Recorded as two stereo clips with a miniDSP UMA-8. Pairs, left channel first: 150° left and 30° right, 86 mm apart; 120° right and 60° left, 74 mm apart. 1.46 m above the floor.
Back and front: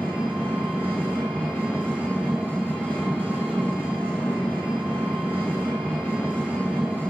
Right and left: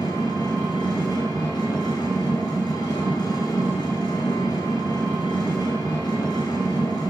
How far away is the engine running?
About 3.5 m.